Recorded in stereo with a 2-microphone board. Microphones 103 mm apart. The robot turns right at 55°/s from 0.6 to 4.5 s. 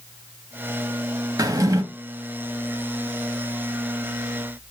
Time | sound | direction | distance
1.4 | a drawer | 35° right (ahead or behind) | 0.9 m